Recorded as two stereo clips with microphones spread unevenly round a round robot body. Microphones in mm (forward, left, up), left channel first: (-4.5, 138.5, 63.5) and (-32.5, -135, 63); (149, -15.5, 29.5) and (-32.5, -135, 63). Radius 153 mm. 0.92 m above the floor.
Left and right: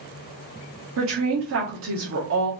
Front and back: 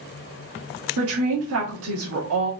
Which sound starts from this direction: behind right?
A woman speaking, at 1.0 s.